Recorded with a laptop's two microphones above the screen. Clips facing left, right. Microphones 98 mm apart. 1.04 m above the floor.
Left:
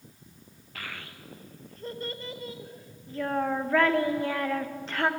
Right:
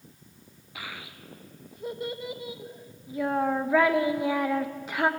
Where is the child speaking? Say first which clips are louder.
Right 1 dB; 10° right (ahead or behind), 0.6 m.